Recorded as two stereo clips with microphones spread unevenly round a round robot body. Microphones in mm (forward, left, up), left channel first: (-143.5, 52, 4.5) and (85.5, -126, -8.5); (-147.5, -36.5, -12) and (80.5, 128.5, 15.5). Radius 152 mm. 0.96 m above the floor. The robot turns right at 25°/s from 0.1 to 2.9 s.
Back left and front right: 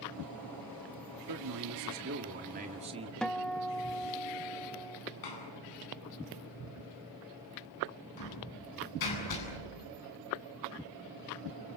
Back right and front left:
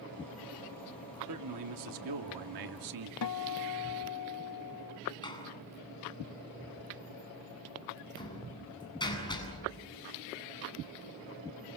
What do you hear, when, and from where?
1.3 s a man speaking: 5° right, 1.9 m; by 3.1 s 35° left, 1.9 m
3.2 s a guitar: 130° right, 1.6 m
5.2 s a door slam: 140° left, 8.5 m